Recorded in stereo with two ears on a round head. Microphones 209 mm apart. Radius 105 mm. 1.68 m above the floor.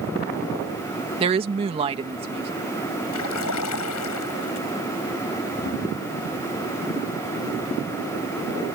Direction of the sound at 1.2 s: 25° right (ahead or behind).